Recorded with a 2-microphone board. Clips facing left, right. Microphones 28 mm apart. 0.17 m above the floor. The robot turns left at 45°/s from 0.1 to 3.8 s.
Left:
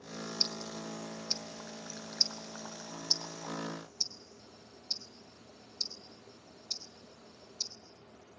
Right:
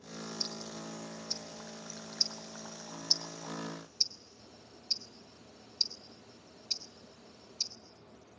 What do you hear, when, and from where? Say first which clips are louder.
0.4 s ticking: left 6 dB; 50° left (ahead or behind), 0.8 m; by 7.7 s 35° right (ahead or behind), 0.8 m